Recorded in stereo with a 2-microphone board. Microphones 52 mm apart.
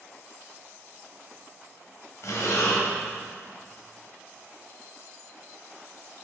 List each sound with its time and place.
2.2 s breathing: 70° left (ahead or behind), 3 m